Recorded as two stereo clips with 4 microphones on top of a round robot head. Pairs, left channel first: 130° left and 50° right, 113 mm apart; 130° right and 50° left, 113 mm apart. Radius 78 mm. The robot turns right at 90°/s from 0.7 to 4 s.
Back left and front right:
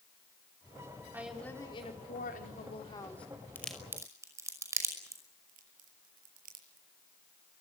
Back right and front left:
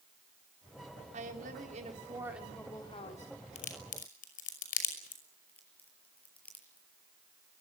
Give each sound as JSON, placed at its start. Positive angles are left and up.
{"t": 1.1, "sound": "a woman speaking", "azimuth_deg": 20, "distance_m": 4.0}
{"t": 3.5, "sound": "a crack", "azimuth_deg": -160, "distance_m": 5.5}
{"t": 5.5, "sound": "a crack", "azimuth_deg": -50, "distance_m": 6.0}